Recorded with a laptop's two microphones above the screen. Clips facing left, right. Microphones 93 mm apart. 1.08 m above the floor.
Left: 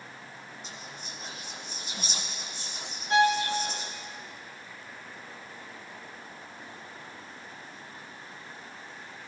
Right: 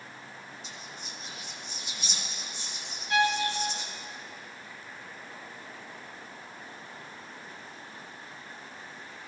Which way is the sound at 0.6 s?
45° left (ahead or behind).